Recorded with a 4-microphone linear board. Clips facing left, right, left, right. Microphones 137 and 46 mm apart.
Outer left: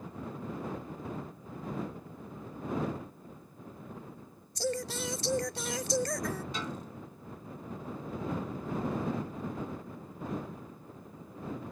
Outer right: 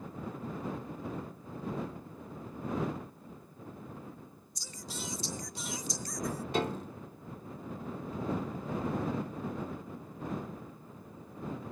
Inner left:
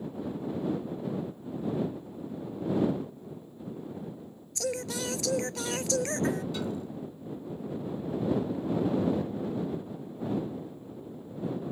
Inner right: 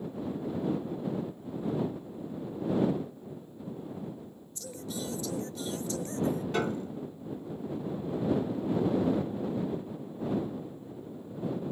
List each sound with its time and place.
4.5 s singing: 80° left
6.5 s a piano: 55° right (ahead or behind)